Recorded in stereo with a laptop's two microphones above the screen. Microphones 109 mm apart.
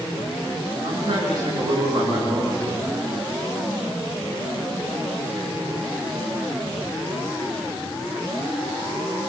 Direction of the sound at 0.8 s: 45° right (ahead or behind).